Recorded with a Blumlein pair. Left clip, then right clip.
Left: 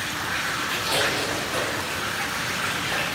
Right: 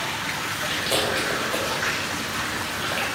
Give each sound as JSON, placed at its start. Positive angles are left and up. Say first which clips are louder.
{"t": 0.7, "sound": "chewing", "louder": "right 1 dB", "azimuth_deg": -55, "distance_m": 2.5}